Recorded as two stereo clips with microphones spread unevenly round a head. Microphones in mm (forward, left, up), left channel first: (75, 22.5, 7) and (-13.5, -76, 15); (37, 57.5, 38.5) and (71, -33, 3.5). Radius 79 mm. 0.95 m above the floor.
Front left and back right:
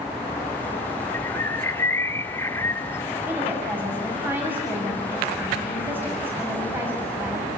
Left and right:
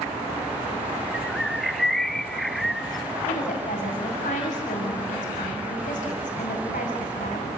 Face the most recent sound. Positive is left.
turn(degrees=150)